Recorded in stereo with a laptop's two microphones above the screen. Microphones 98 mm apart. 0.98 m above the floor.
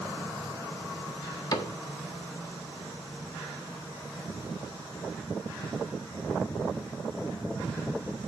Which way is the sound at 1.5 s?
40° left (ahead or behind).